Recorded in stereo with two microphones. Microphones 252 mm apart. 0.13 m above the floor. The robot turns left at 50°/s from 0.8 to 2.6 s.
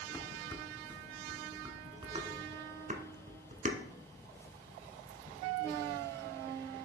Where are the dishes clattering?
10° left (ahead or behind), 0.8 m; by 3.8 s 30° right (ahead or behind), 0.8 m.